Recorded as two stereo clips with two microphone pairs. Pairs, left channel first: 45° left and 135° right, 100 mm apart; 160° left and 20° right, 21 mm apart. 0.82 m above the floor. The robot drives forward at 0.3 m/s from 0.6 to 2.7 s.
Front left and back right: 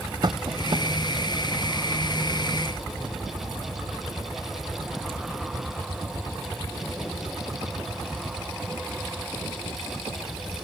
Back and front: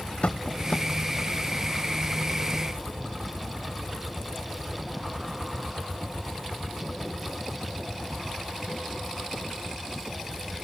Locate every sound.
0.2 s tapping: 170° right